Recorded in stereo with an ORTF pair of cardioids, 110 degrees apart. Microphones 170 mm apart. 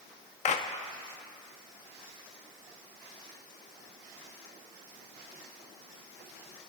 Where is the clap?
45° left, 1.2 m.